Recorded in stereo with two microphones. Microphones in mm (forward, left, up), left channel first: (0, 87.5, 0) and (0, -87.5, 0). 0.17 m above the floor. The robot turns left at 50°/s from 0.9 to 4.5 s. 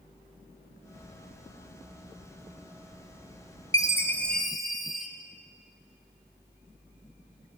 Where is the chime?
40° left, 0.7 m; by 5.1 s straight ahead, 0.7 m.